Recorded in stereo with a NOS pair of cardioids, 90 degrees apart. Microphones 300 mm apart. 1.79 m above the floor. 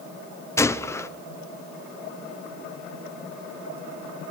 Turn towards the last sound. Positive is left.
turn(degrees=10)